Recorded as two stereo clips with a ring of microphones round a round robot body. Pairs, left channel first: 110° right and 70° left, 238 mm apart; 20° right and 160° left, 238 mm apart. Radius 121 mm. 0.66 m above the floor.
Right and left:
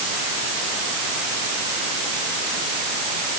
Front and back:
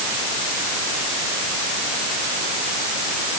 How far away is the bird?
No bird in this recording.